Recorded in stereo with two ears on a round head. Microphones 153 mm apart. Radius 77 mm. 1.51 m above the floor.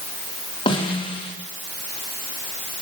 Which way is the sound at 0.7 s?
30° left (ahead or behind).